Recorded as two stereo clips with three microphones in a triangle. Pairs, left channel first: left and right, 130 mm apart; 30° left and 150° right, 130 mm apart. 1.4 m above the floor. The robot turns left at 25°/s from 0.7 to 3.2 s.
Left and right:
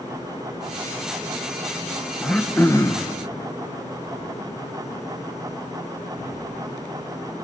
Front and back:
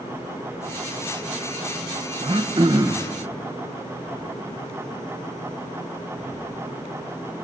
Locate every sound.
2.2 s throat clearing: 175° left, 1.0 m; by 3.1 s 150° left, 1.0 m